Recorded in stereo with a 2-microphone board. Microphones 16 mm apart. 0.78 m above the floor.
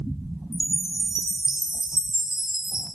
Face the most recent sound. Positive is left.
turn(degrees=-45)  # may be behind; listen again after turning